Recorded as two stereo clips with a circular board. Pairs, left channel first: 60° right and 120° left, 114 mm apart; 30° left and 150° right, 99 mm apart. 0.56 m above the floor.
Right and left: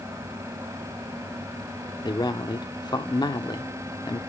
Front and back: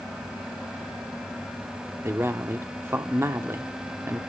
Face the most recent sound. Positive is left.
turn(degrees=-95)